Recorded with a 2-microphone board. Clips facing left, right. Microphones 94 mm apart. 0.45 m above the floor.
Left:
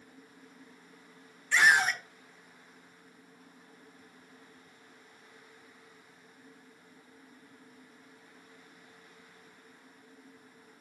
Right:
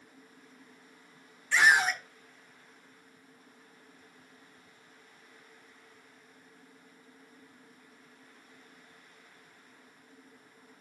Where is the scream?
5° right (ahead or behind), 1.2 m.